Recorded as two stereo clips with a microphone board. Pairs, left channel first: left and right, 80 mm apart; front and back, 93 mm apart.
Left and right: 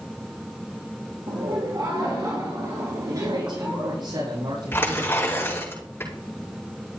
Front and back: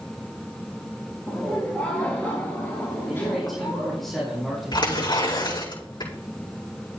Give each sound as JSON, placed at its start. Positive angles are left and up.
{"t": 1.3, "sound": "laughter", "azimuth_deg": -75, "distance_m": 3.5}
{"t": 3.1, "sound": "a man speaking", "azimuth_deg": -90, "distance_m": 6.0}
{"t": 4.7, "sound": "tearing paper", "azimuth_deg": 30, "distance_m": 6.5}